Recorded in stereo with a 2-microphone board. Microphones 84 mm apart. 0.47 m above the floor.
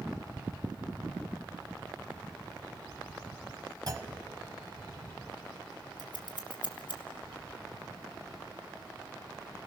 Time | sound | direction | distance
3.9 | a clunk | 45° right (ahead or behind) | 1.2 m
6.0 | scissors | 70° left (ahead or behind) | 2 m